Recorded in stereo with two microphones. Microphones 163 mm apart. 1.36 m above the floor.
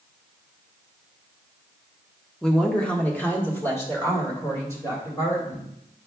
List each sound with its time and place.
2.4 s a woman speaking: 5° left (ahead or behind), 1.1 m; by 5.7 s 20° left (ahead or behind), 3 m